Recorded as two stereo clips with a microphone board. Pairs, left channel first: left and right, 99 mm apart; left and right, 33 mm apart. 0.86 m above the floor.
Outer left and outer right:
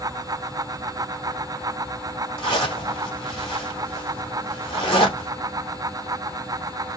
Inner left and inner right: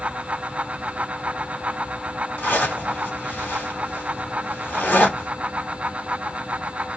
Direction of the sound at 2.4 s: 60° left (ahead or behind).